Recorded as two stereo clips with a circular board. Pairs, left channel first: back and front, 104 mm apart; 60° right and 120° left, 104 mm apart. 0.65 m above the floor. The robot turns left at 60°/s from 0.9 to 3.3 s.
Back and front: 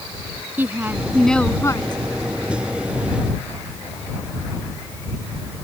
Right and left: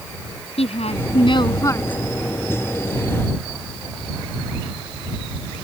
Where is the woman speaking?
70° right; by 2.0 s 140° right.